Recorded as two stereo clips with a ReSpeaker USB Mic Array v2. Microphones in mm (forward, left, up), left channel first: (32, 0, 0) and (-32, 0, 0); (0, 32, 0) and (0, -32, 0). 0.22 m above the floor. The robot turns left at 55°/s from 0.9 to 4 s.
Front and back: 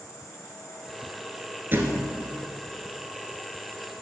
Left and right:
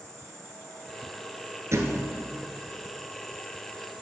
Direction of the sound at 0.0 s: 15° left.